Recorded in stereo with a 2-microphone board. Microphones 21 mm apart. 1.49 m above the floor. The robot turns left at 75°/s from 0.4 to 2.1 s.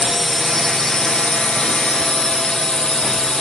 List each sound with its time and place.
0.0 s a drone: 175° left; by 3.4 s 50° left